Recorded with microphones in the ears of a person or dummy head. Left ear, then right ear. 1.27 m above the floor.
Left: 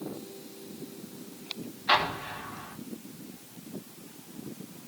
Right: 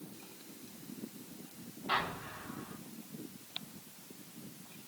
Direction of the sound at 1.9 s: 65° left (ahead or behind).